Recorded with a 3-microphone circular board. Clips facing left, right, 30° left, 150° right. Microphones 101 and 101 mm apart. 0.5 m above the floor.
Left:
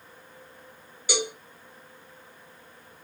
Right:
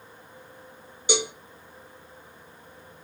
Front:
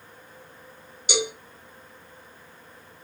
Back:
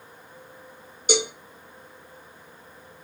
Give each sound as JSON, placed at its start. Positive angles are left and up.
{"t": 1.1, "sound": "a cowbell", "azimuth_deg": -150, "distance_m": 1.1}